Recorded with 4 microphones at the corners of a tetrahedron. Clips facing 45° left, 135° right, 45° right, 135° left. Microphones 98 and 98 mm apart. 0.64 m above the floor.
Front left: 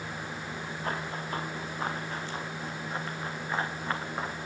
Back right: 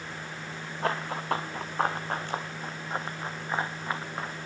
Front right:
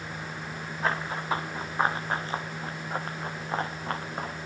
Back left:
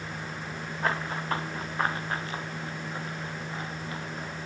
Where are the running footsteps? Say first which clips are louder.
Back right 6 dB, front right 1 dB; 135° right, 4 m; by 4.3 s 40° right, 3 m.